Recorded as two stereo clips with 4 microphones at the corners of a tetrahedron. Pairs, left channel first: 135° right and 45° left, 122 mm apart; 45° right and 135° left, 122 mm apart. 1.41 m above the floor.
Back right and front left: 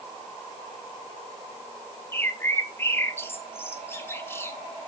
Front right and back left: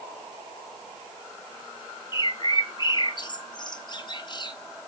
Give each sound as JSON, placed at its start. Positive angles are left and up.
{"t": 2.1, "sound": "a bird", "azimuth_deg": -75, "distance_m": 1.1}